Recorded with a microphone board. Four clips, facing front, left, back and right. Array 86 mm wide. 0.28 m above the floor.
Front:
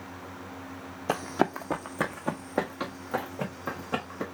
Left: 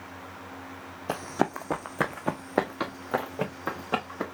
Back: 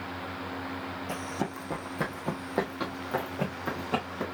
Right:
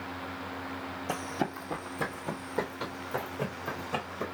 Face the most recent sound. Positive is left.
turn(degrees=90)